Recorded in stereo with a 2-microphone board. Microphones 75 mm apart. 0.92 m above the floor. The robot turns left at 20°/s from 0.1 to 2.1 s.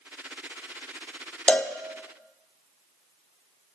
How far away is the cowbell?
About 0.5 m.